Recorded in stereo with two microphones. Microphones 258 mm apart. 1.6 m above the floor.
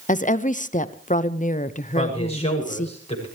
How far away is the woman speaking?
About 0.8 m.